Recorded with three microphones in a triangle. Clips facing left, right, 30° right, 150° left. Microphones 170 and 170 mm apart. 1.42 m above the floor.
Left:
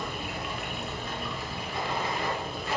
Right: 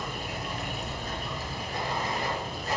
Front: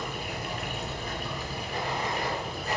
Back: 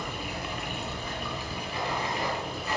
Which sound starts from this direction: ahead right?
Running water, at 0.0 s.